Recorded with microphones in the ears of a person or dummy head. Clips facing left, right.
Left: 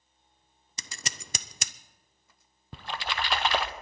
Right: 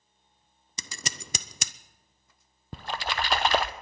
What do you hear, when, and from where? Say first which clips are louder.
0.8 s scissors: right 3 dB; 75° right (ahead or behind), 0.6 m
2.7 s a splash: right 2 dB; 45° right (ahead or behind), 0.8 m